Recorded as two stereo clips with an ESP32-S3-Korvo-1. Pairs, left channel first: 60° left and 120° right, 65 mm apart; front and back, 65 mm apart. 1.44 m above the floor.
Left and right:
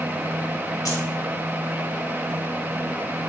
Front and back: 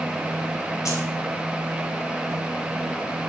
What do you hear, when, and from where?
0.8 s keys jangling: 35° left, 2 m